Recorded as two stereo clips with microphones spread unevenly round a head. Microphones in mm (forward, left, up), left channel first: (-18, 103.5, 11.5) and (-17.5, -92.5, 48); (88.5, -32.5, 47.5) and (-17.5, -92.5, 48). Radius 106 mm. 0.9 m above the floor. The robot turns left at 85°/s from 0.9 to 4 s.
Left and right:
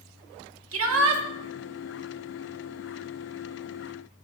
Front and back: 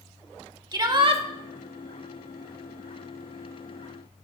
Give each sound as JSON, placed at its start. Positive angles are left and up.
{"t": 0.7, "sound": "a shout", "azimuth_deg": -95, "distance_m": 1.7}